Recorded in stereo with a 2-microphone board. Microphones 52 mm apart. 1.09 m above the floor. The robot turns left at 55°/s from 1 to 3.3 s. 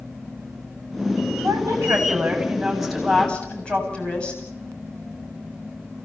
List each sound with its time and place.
1.4 s a woman speaking: 100° right, 9 m; by 4.4 s 155° left, 9 m